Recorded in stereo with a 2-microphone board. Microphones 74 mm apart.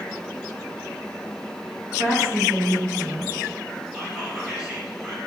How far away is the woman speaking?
About 2 m.